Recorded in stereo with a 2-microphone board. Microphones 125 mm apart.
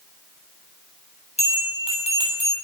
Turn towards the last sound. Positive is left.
turn(degrees=60)  # may be behind; listen again after turning